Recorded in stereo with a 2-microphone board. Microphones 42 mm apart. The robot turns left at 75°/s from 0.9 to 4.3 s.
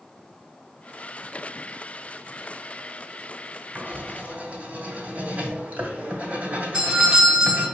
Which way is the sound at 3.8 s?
40° right (ahead or behind).